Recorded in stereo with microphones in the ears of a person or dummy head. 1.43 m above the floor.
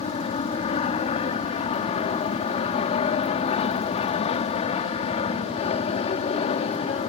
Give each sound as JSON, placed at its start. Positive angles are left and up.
{"t": 0.0, "sound": "an aircraft", "side_deg": 35}